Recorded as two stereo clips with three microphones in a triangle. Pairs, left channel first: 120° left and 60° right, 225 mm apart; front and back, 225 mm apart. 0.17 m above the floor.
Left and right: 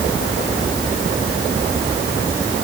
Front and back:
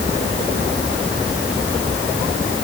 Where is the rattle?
I don't hear a rattle.